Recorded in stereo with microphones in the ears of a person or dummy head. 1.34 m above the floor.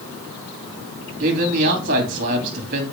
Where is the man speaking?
50° right (ahead or behind), 2.5 m.